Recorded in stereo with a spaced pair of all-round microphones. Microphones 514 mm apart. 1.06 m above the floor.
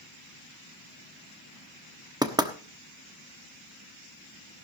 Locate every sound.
2.2 s knocking: 10° right (ahead or behind), 1.1 m